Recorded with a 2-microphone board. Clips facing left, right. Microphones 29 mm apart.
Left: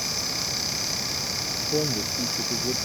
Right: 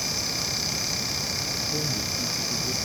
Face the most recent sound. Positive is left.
turn(degrees=65)  # may be behind; listen again after turning